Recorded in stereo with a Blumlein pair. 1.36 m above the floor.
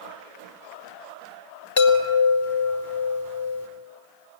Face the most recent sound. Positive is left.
turn(degrees=55)